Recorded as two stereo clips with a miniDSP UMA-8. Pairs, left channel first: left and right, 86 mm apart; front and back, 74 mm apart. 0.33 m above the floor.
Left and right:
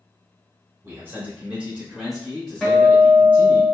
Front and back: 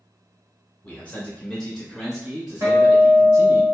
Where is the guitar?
175° left, 0.9 m.